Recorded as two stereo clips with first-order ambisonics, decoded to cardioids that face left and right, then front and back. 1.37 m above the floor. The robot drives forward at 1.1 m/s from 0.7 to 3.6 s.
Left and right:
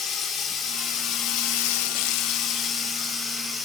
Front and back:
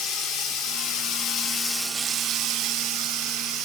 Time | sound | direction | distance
0.0 | running water | 25° left | 1.4 m